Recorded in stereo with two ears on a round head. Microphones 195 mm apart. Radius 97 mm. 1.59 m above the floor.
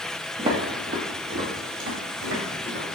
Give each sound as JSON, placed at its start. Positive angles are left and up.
{"t": 0.4, "sound": "footsteps", "side_deg": -25, "distance_m": 1.8}